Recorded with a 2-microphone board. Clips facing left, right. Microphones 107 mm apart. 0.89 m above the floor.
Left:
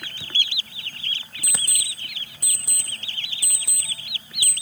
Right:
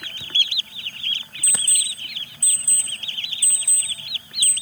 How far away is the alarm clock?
About 0.9 m.